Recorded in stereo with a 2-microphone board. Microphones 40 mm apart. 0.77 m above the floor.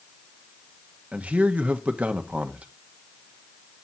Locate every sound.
1.1 s a man speaking: 35° right (ahead or behind), 1.0 m